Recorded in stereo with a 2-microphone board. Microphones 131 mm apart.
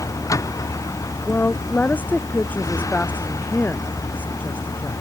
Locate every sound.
0.0 s a vehicle: 25° left (ahead or behind)
1.3 s a woman speaking: 10° left (ahead or behind)